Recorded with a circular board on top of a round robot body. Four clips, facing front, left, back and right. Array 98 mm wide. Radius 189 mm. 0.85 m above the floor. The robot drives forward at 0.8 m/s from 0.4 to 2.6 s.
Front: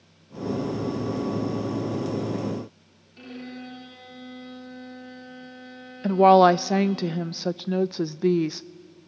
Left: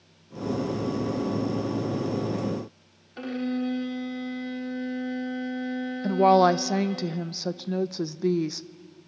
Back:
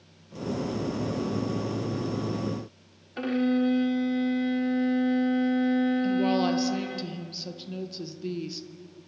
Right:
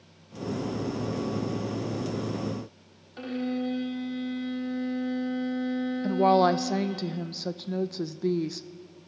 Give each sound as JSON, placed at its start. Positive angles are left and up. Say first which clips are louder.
{"t": 3.2, "sound": "a violin", "louder": "left 2 dB, back 14 dB", "azimuth_deg": 170, "distance_m": 2.0}
{"t": 6.0, "sound": "a woman speaking", "louder": "left 3 dB, front 9 dB", "azimuth_deg": 10, "distance_m": 0.7}